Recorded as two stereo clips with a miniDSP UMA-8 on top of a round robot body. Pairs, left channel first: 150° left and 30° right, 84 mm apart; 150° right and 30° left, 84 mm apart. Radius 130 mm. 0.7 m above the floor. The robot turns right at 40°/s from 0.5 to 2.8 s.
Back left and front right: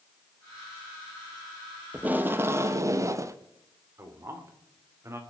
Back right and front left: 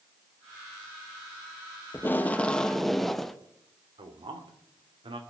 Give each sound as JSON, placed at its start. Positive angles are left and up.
{"t": 1.9, "sound": "tape being pulled", "azimuth_deg": -100, "distance_m": 0.9}
{"t": 4.0, "sound": "a man speaking", "azimuth_deg": 25, "distance_m": 2.0}